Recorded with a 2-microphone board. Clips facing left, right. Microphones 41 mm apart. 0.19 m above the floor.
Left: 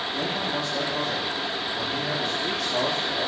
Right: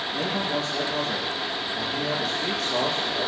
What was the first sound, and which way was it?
A man speaking, 55° right (ahead or behind).